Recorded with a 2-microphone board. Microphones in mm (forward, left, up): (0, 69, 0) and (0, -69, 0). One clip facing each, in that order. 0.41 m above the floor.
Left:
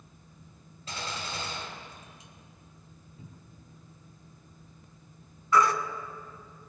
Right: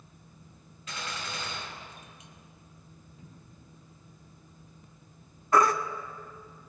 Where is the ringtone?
No ringtone in this recording.